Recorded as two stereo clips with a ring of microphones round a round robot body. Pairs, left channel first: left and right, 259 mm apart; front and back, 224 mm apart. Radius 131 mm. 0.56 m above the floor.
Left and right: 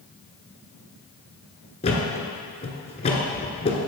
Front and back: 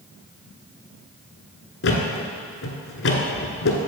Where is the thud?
25° left, 1.4 m.